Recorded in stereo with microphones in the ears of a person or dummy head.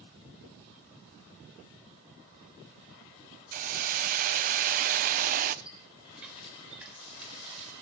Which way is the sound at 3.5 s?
45° right (ahead or behind).